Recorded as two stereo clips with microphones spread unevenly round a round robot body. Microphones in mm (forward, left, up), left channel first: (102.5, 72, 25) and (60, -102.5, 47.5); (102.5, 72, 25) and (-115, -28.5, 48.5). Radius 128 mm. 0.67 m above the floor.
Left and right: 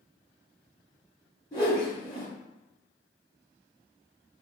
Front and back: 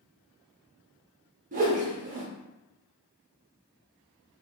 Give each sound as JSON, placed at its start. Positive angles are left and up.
{"t": 1.5, "sound": "a whoosh", "azimuth_deg": 155, "distance_m": 0.5}